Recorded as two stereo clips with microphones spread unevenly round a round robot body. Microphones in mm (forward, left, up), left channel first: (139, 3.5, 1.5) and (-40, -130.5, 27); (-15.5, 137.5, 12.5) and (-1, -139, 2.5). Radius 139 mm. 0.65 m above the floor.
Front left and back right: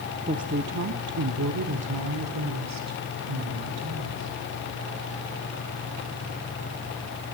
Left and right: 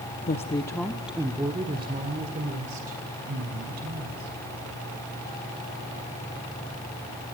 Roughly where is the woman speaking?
Behind left.